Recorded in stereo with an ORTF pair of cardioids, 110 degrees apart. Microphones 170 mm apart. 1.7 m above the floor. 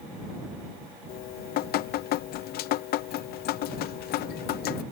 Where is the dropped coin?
No dropped coin in this recording.